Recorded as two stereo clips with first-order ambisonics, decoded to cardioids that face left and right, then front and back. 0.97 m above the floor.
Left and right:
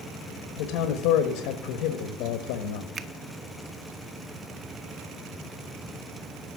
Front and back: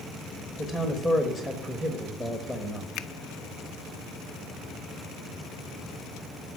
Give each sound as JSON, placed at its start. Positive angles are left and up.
{"t": 0.6, "sound": "a man speaking", "azimuth_deg": 95, "distance_m": 1.1}
{"t": 3.0, "sound": "a finger snap", "azimuth_deg": -35, "distance_m": 0.6}